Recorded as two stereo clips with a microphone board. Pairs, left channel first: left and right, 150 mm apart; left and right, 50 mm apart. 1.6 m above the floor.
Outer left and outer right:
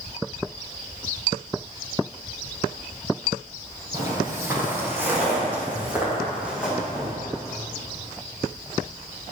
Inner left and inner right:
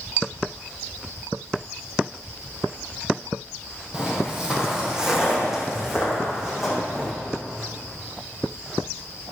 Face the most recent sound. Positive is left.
turn(degrees=-5)  # may be behind; listen again after turning